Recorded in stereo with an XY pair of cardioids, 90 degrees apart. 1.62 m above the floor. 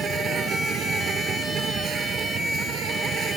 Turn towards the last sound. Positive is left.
turn(degrees=-70)